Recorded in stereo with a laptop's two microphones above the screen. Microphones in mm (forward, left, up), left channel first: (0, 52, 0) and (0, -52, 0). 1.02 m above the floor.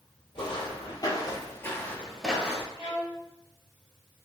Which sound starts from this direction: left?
Footsteps, at 0.3 s.